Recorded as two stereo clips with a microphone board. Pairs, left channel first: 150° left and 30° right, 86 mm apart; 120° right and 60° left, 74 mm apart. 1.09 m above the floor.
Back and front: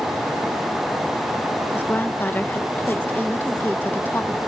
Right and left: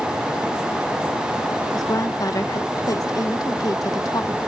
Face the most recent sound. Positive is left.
turn(degrees=-150)